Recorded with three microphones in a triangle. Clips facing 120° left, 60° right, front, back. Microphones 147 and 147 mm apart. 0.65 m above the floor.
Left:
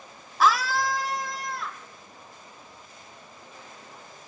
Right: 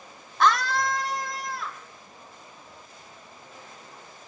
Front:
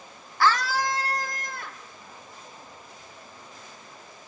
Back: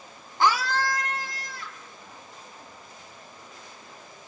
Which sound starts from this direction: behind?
A scream, at 0.4 s.